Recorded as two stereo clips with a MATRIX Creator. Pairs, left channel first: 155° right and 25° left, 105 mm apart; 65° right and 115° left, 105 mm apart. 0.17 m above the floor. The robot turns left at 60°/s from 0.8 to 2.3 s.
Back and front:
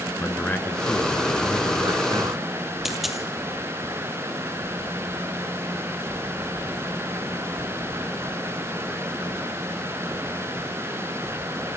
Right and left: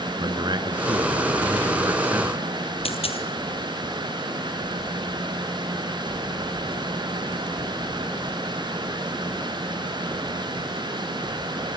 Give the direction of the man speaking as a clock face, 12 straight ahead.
8 o'clock.